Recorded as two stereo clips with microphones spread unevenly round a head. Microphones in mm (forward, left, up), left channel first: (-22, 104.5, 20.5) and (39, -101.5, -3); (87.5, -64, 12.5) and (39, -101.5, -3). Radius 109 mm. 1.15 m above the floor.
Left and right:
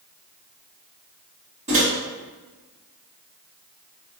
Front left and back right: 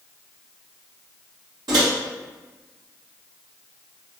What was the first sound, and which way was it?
A microwave, 135° right.